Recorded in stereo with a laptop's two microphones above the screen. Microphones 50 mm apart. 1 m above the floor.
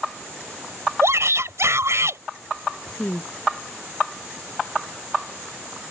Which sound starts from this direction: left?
A woman speaking, at 2.9 s.